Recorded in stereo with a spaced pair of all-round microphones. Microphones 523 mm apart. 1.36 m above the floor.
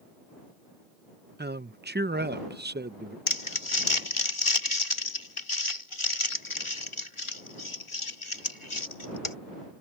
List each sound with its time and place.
1.4 s a man speaking: 20° right (ahead or behind)
3.3 s crumpling: 65° left (ahead or behind)